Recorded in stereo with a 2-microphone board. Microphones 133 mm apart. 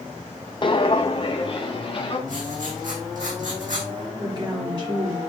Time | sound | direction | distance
0.6 | footsteps | 35° left (ahead or behind) | 0.6 m
2.3 | writing | 75° right (ahead or behind) | 4 m
4.2 | a woman speaking | 35° right (ahead or behind) | 4 m